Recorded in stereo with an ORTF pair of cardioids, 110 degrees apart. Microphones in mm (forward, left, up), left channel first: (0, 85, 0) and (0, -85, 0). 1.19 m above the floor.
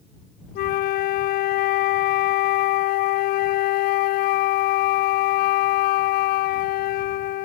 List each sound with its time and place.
0.6 s a flute: 70° left